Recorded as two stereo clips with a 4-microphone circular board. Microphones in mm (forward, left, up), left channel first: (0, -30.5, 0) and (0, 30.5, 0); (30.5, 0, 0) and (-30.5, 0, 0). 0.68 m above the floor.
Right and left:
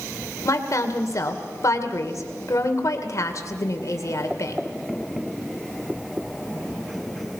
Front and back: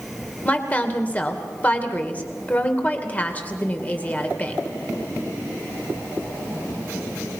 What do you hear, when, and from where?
0.4 s a woman speaking: 65° right, 2.5 m